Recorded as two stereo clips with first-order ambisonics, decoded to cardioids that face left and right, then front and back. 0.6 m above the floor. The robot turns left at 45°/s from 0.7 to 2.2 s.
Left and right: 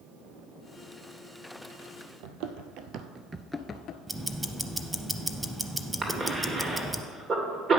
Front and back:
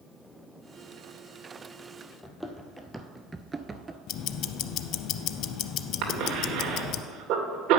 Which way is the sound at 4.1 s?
10° right.